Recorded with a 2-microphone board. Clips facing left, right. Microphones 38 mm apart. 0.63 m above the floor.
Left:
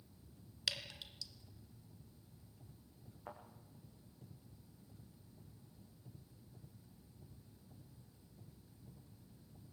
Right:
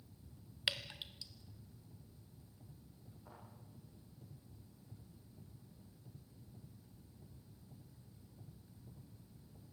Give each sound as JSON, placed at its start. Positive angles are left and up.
{"t": 0.7, "sound": "dripping", "side_deg": -25, "distance_m": 1.5}
{"t": 3.3, "sound": "a thud", "side_deg": 55, "distance_m": 5.0}